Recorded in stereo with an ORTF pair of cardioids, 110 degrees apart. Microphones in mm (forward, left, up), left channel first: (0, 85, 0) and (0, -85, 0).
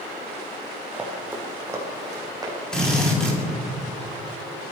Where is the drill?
5° left, 4.5 m.